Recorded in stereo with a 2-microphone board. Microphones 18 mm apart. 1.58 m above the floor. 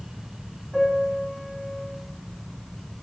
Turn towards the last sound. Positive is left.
turn(degrees=-10)  # may be behind; listen again after turning